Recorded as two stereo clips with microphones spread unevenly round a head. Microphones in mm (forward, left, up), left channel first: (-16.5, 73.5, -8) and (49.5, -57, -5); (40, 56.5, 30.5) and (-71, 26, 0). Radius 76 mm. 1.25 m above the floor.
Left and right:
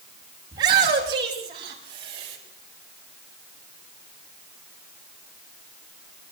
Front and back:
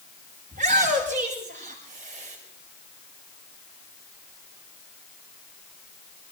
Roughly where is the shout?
Behind right.